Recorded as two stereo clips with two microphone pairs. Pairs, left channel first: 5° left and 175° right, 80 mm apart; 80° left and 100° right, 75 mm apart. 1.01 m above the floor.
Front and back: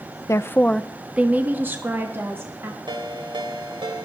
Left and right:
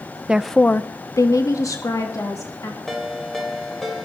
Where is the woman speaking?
20° right, 0.6 m; by 2.8 s 125° left, 2.5 m.